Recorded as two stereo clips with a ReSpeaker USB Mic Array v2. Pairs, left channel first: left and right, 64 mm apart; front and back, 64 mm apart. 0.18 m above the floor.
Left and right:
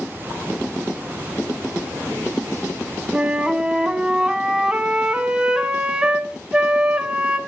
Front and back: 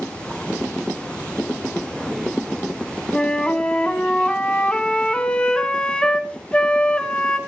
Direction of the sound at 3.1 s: 35° right.